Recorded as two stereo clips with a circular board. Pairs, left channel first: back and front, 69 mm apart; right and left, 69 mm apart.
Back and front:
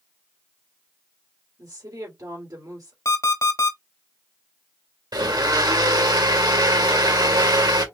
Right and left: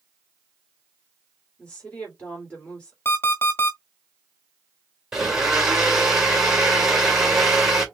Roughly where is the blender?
Ahead.